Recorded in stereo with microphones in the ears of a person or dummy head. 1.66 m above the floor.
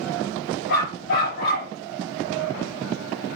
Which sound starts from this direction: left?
A dog barking, at 0.7 s.